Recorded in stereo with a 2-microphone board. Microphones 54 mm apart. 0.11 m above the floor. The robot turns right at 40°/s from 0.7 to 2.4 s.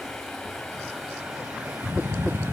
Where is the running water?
170° left, 3 m; by 2.5 s 125° right, 3 m.